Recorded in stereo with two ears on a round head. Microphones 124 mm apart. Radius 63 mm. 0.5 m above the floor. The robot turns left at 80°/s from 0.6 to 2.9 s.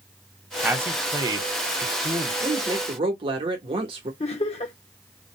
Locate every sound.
0.6 s a man speaking: 10° right (ahead or behind), 1.0 m
2.4 s a woman speaking: 35° right, 1.1 m; by 4.1 s 70° right, 1.1 m
4.2 s laughter: 45° left (ahead or behind), 1.0 m